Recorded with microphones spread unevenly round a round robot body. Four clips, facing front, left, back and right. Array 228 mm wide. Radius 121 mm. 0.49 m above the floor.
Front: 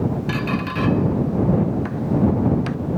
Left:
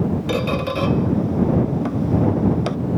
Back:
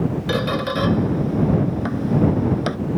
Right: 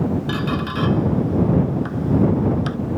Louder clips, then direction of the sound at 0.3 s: Left 2 dB, back 2 dB; 135° left.